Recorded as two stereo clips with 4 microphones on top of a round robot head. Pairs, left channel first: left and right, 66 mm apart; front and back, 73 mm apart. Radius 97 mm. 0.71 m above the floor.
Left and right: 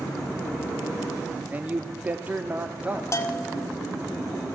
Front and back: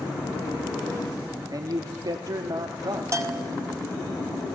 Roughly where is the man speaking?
Behind right.